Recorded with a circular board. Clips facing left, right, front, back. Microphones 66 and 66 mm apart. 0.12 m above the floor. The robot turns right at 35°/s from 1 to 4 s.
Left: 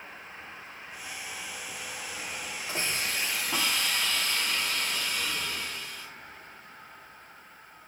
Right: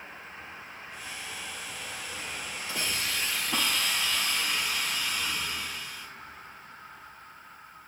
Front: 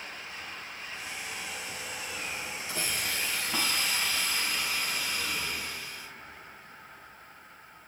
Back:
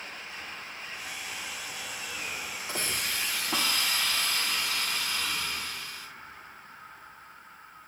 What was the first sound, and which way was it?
A hiss, 145° left.